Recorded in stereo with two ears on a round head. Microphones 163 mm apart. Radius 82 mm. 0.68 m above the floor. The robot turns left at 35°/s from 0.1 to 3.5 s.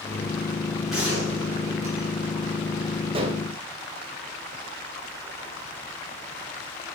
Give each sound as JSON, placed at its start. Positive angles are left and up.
{"t": 0.9, "sound": "a gunshot", "azimuth_deg": 0, "distance_m": 8.5}
{"t": 3.1, "sound": "dishes clattering", "side_deg": -30, "distance_m": 2.0}